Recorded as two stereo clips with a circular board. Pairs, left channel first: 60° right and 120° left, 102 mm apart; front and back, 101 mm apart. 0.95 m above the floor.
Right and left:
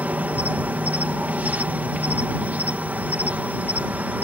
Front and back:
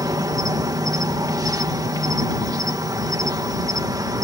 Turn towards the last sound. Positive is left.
turn(degrees=-175)